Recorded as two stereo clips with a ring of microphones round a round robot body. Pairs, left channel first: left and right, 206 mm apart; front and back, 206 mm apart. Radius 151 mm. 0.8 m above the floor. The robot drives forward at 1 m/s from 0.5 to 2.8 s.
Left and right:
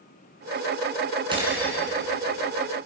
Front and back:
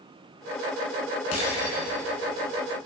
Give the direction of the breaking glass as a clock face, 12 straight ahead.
1 o'clock.